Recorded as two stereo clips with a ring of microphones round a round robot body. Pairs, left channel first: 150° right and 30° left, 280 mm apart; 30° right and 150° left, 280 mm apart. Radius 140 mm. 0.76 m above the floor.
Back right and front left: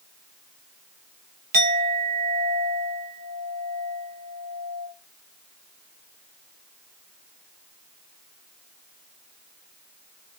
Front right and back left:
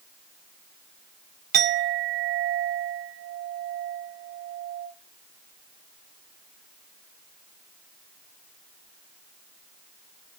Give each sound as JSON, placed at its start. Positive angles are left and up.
{"t": 1.5, "sound": "a clink", "azimuth_deg": 90, "distance_m": 0.7}